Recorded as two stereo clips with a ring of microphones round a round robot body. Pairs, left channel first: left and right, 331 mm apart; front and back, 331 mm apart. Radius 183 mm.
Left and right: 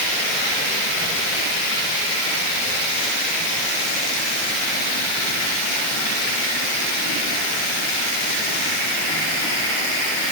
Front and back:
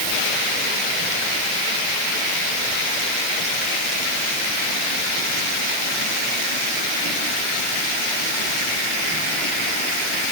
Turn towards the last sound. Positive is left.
No sound to turn to.